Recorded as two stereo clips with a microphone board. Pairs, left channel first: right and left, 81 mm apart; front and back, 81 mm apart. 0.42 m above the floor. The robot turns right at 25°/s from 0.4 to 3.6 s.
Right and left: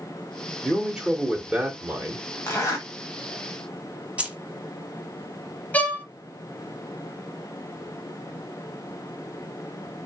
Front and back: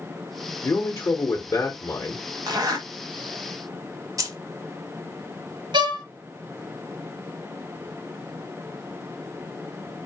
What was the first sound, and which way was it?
A man speaking, 10° left.